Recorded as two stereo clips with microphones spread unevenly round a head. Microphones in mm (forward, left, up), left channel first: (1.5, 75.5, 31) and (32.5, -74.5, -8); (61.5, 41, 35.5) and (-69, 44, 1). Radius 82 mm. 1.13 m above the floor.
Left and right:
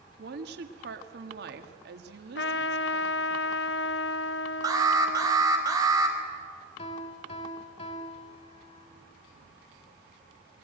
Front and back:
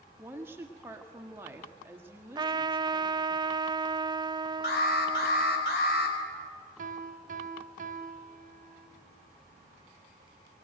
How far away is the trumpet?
About 0.6 m.